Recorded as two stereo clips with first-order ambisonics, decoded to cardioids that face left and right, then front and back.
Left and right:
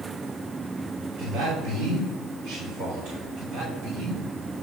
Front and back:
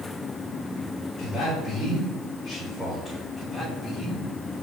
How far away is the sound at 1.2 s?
About 3.5 m.